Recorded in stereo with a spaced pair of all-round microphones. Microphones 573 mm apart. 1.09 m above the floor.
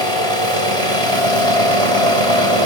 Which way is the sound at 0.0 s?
65° right (ahead or behind).